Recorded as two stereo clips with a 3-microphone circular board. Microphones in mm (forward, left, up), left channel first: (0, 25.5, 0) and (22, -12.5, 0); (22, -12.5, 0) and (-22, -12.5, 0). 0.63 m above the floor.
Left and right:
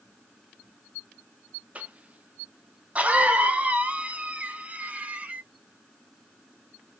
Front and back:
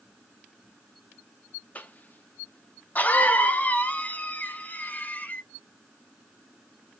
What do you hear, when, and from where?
1.8 s a cough: 25° right, 0.8 m